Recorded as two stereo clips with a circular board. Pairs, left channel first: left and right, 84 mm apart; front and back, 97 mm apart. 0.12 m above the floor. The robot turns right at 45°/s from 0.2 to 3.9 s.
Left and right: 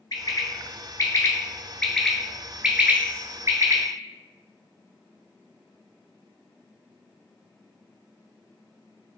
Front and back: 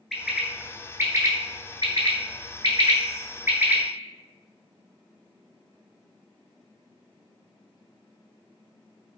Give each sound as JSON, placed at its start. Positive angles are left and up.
{"t": 0.1, "sound": "a bird", "azimuth_deg": 90, "distance_m": 0.5}